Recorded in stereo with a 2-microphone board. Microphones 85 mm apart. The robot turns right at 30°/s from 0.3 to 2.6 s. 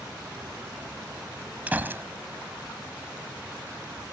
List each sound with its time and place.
1.7 s a gunshot: 20° right (ahead or behind); by 2.0 s 30° right (ahead or behind)